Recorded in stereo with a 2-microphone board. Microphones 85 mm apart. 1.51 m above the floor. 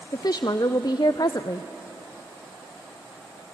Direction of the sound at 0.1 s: 45° left (ahead or behind).